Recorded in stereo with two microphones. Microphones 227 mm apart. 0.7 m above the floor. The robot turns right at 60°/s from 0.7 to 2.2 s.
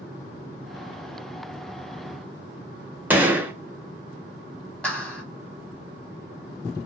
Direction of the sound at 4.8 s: 5° left (ahead or behind).